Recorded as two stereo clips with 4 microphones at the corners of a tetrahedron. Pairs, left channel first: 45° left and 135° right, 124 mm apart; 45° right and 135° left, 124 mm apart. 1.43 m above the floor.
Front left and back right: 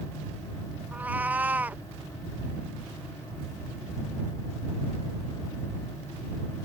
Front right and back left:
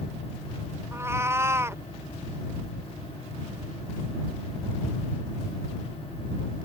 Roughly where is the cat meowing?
Behind.